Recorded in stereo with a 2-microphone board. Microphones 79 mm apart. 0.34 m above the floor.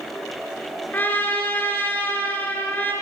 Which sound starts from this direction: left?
A trumpet, at 0.9 s.